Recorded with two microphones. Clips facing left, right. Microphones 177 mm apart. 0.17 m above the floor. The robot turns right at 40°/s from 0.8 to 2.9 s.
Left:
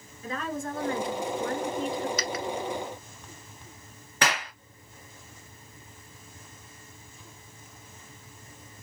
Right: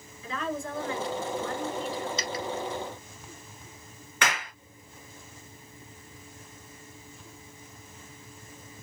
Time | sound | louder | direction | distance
0.2 | a woman speaking | even | 65° left | 2 m
2.2 | a dropped coin | left 1 dB | 25° right (ahead or behind) | 0.8 m
4.2 | a clap | left 2 dB | 35° left (ahead or behind) | 1.9 m